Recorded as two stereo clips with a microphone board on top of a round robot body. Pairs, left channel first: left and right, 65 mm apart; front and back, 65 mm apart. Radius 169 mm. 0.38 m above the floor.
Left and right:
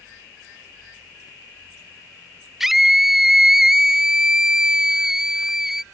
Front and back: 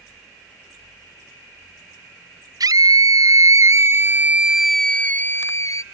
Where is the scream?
175° right; by 5.8 s 5° right.